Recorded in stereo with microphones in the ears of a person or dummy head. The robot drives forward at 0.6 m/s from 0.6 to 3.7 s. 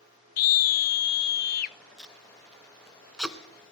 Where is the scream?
45° left (ahead or behind), 0.8 m; by 1.8 s 40° left (ahead or behind), 0.9 m.